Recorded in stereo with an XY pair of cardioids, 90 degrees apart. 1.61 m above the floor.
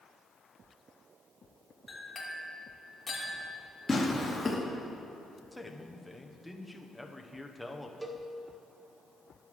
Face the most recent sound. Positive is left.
turn(degrees=-15)